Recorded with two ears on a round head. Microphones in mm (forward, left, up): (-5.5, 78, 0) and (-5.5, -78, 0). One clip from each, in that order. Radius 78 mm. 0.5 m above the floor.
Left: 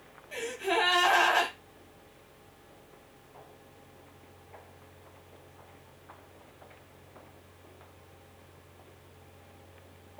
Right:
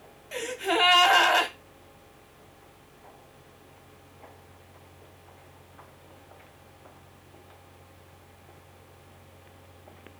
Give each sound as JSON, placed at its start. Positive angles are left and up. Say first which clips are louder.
{"t": 0.3, "sound": "a gasp", "louder": "right 3 dB", "side_deg": -35, "distance_m": 0.7}